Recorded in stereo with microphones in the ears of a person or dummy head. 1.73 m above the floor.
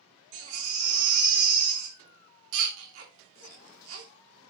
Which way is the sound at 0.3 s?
60° right (ahead or behind).